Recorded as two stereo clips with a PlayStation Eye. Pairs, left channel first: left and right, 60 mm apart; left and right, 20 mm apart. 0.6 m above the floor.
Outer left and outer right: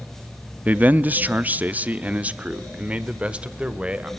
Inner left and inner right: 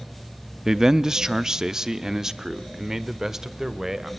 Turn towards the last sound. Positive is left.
turn(degrees=-20)  # may be behind; listen again after turning